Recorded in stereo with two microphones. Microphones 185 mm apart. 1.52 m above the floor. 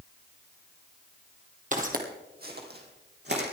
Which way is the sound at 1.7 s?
45° right (ahead or behind).